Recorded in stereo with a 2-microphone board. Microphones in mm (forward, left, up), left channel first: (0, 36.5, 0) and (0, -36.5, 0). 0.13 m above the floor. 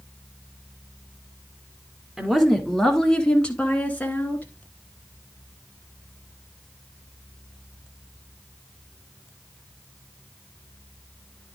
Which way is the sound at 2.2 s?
10° right (ahead or behind).